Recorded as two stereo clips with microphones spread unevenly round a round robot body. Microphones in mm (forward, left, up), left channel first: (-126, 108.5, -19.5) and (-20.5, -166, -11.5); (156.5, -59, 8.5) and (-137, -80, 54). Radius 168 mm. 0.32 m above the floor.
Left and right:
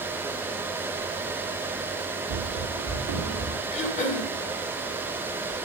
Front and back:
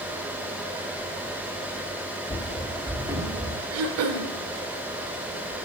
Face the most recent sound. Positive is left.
turn(degrees=165)